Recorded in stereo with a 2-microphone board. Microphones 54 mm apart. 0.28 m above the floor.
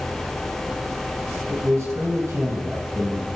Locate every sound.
1.5 s a man speaking: 65° right (ahead or behind), 4 m